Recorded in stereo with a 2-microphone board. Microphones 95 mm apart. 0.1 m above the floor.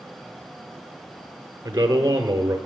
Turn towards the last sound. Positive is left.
turn(degrees=-25)  # may be behind; listen again after turning